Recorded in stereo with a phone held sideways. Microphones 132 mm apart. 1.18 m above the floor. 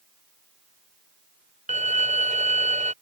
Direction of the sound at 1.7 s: 65° right (ahead or behind).